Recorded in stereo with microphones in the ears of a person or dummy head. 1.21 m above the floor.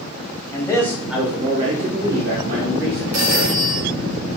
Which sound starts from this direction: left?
A man speaking, at 0.5 s.